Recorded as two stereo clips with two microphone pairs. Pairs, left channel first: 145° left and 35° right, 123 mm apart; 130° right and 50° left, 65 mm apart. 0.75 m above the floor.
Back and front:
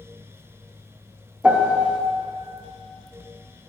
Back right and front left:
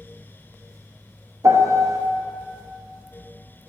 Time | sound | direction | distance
1.4 | a piano | 45° left | 0.6 m